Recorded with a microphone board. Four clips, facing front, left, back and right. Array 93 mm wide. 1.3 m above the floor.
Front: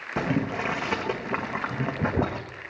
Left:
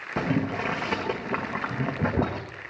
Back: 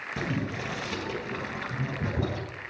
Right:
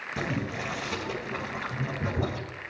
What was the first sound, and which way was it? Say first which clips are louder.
Boiling: left 6 dB, front 6 dB; 40° left.